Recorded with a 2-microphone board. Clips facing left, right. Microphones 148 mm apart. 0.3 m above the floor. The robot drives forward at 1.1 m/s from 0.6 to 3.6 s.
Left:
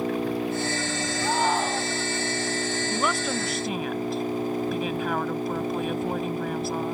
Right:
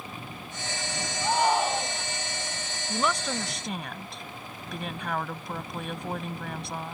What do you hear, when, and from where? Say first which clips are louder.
0.0 s an engine running: left 16 dB; 90° left; by 6.9 s 80° left
1.2 s a shout: right 1 dB; 5° right (ahead or behind)
2.9 s a woman speaking: right 1 dB; 5° left (ahead or behind); by 6.9 s centre (ahead or behind)